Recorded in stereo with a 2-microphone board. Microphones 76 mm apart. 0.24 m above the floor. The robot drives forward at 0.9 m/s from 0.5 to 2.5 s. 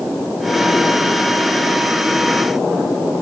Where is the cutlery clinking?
No cutlery clinking in this recording.